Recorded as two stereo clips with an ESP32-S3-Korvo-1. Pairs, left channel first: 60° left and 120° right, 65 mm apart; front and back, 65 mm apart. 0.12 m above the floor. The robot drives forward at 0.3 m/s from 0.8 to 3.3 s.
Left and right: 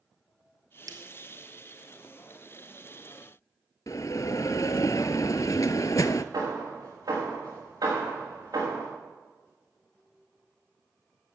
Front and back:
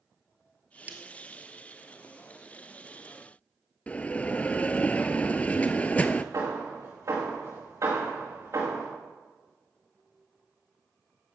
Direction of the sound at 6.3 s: 145° right.